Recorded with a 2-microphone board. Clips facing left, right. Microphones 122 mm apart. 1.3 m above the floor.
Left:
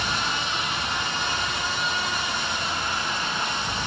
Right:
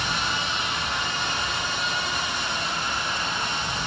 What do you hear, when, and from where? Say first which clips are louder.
0.0 s an insect: even; 70° left (ahead or behind), 6 m